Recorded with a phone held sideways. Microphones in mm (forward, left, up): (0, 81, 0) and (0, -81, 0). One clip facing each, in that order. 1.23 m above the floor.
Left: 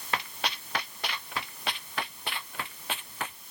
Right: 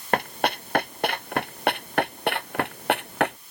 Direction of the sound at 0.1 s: 50° right (ahead or behind).